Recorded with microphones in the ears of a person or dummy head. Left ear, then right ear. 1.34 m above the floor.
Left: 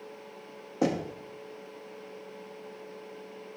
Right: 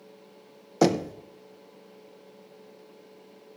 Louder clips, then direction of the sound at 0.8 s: Right 6 dB; 80° right.